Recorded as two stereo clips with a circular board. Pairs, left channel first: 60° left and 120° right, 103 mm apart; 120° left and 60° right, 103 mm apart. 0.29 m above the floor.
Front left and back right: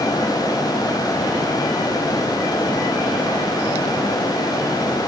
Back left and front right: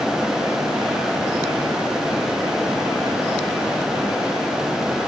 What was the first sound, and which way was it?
Only background noise.